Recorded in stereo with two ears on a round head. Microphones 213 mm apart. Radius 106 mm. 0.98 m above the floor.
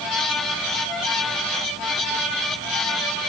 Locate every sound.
Only background noise.